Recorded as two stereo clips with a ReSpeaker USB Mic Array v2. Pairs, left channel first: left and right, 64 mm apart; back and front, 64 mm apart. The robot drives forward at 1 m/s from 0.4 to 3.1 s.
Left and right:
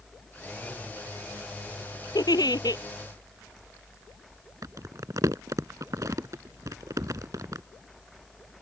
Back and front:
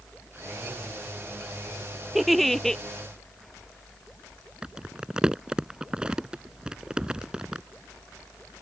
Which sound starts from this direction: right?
Crumpling, at 4.6 s.